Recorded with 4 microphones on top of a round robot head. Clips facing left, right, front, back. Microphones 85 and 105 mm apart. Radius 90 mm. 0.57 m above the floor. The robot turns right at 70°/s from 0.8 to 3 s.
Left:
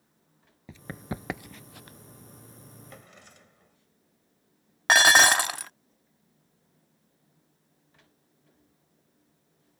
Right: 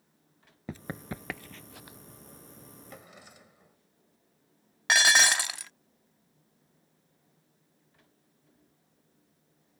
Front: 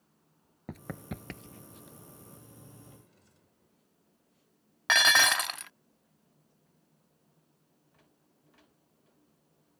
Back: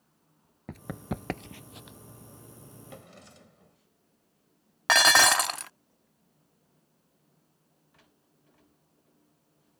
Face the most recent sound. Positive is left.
turn(degrees=130)